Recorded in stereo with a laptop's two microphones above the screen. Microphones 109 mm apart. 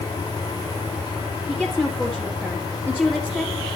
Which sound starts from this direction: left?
A fan, at 0.0 s.